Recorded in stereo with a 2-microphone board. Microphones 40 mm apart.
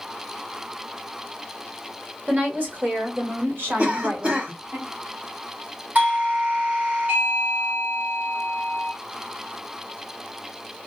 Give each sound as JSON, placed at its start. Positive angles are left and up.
{"t": 2.3, "sound": "a woman speaking", "side_deg": -40, "distance_m": 1.5}
{"t": 3.8, "sound": "a cough", "side_deg": -35, "distance_m": 2.0}
{"t": 6.0, "sound": "a doorbell", "side_deg": -45, "distance_m": 2.5}